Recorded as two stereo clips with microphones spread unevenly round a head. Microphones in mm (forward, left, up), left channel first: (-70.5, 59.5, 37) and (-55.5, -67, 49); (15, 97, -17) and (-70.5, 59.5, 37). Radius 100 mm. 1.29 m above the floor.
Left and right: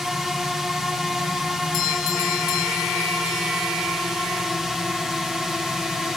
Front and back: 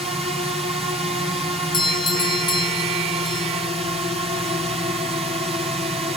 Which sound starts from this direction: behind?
A drone, at 0.0 s.